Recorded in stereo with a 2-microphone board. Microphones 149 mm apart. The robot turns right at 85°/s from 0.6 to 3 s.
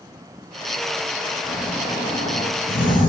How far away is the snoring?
About 6 m.